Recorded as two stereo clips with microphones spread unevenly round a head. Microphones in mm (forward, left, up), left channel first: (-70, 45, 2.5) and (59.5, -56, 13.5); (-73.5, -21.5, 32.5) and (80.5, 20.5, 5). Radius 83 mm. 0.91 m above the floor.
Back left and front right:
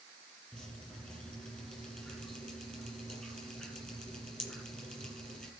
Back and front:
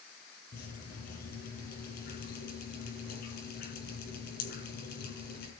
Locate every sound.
0.5 s dripping: 130° right, 8 m